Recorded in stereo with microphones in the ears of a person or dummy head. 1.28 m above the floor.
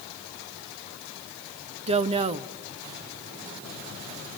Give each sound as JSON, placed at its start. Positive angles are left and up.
{"t": 1.9, "sound": "a woman speaking", "side_deg": -30, "distance_m": 0.8}